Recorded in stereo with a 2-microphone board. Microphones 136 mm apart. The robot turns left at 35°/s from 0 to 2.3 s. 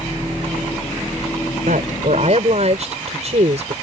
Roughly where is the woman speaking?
Right.